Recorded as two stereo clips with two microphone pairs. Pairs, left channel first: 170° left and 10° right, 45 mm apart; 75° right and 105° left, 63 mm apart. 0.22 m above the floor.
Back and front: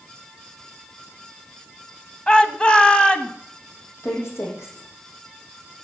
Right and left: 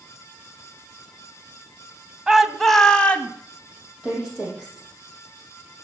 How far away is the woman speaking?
About 7 m.